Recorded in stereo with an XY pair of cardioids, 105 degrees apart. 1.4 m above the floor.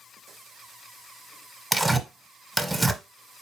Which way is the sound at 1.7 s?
5° right.